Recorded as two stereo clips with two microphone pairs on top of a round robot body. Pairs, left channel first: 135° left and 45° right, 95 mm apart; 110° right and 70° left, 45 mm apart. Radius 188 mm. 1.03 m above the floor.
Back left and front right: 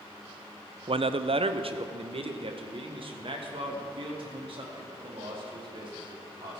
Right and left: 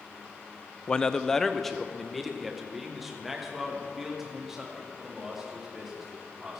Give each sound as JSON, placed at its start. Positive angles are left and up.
{"t": 0.9, "sound": "a man speaking", "azimuth_deg": -50, "distance_m": 0.6}